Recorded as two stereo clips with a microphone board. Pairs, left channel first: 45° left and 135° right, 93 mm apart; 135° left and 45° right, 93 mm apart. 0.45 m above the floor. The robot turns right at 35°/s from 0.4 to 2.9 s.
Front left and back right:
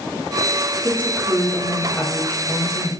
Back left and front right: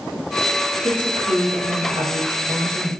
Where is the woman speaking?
75° right, 2.5 m; by 2.9 s 5° right, 2.5 m.